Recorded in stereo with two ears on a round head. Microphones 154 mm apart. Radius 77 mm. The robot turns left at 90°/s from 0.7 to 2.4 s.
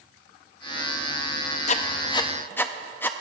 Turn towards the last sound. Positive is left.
turn(degrees=10)  # may be behind; listen again after turning